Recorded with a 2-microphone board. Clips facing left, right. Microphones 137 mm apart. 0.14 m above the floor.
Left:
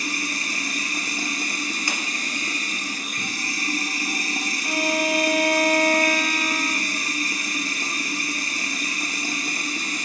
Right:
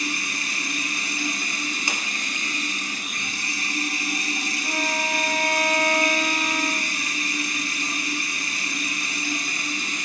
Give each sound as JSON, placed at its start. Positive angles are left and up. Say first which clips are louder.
{"t": 0.0, "sound": "running water", "louder": "left 1 dB", "side_deg": 40, "distance_m": 0.8}
{"t": 1.9, "sound": "a clap", "louder": "left 1 dB", "side_deg": -20, "distance_m": 0.9}
{"t": 4.6, "sound": "a violin", "louder": "left 5 dB", "side_deg": -50, "distance_m": 1.8}